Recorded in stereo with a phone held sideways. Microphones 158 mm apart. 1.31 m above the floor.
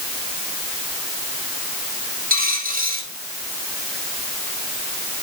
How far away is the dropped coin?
About 7.5 m.